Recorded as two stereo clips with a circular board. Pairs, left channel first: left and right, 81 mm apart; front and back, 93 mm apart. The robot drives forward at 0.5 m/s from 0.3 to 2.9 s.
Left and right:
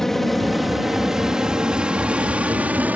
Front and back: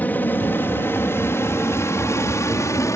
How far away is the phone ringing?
I don't hear a phone ringing.